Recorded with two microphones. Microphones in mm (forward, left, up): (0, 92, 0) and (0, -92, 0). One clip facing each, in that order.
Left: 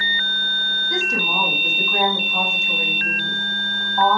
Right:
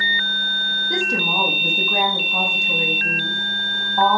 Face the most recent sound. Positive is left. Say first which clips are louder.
# right 2 dB
turn(degrees=-30)  # may be behind; listen again after turning